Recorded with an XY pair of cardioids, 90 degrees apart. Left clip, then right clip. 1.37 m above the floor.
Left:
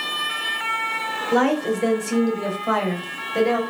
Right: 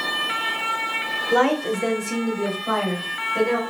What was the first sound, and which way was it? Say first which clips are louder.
A woman speaking: even; 5° right.